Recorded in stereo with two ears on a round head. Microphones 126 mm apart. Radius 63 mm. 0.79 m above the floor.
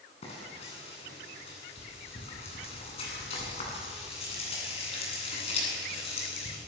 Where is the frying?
45° left (ahead or behind), 9.5 m.